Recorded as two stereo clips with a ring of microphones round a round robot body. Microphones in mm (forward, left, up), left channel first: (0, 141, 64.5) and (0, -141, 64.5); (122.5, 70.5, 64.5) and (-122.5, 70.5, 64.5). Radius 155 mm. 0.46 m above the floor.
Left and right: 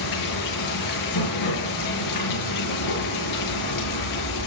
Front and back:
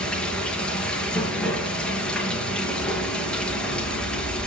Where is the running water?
85° left, 8 m.